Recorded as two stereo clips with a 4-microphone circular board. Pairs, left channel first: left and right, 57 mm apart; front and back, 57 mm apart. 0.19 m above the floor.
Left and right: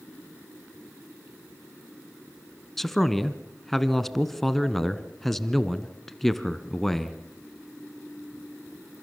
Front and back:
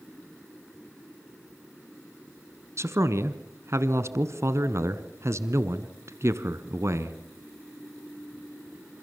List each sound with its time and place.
2.8 s a man speaking: 175° left, 1.6 m